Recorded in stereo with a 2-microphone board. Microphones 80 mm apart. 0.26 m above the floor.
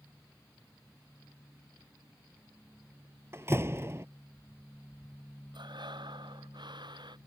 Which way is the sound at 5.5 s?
70° right (ahead or behind).